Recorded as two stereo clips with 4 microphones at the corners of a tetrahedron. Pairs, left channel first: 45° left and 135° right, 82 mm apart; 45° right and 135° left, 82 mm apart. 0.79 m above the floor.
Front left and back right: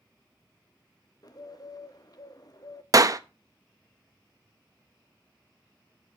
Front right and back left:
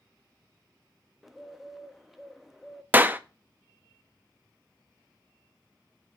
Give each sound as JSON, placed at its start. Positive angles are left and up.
{"t": 1.2, "sound": "a bird", "azimuth_deg": 50, "distance_m": 0.7}
{"t": 2.9, "sound": "a clap", "azimuth_deg": -165, "distance_m": 0.5}